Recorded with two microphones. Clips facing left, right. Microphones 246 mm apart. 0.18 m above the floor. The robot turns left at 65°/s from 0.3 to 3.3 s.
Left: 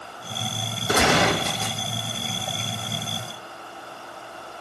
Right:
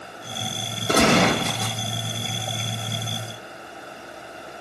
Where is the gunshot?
35° right, 4 m; by 1.8 s 90° right, 4 m.